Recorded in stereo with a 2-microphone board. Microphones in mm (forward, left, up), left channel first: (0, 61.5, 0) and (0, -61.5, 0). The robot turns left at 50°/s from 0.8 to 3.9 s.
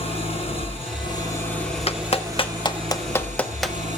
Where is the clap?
55° left (ahead or behind), 1.1 m; by 3.8 s 5° right (ahead or behind), 1.1 m.